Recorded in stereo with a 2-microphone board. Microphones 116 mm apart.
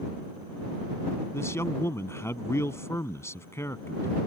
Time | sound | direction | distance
1.3 | a man speaking | 25° left (ahead or behind) | ?